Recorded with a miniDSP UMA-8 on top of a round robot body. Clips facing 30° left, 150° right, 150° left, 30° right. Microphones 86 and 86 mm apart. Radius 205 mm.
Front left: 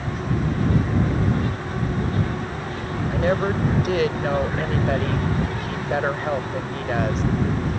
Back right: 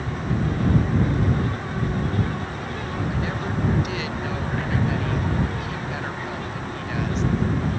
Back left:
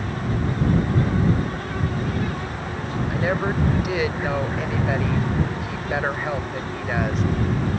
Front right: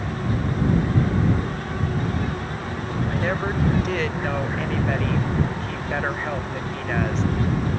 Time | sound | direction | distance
3.1 | a woman speaking | 70° left | ?